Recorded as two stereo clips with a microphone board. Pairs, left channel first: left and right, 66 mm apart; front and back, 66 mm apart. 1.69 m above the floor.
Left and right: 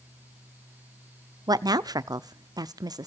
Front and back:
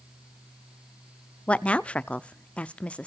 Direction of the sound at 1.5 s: 75° right.